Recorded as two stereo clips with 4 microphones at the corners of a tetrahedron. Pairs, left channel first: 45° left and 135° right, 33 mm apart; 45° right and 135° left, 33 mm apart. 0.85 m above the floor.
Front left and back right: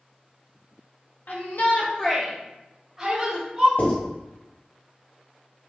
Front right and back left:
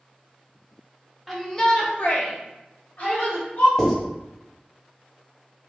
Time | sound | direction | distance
1.3 | a shout | 45° left | 0.9 m
3.8 | writing | 45° left | 1.6 m